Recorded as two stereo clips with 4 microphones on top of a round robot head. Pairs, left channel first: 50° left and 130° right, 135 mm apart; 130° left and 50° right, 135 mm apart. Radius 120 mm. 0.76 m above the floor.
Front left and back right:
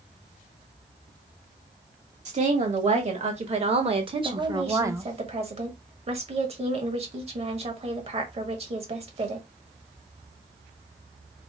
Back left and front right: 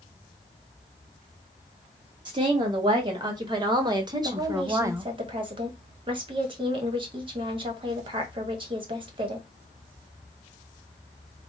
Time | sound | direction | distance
2.2 | a woman speaking | 105° right | 1.8 m
4.2 | a woman speaking | 95° right | 1.3 m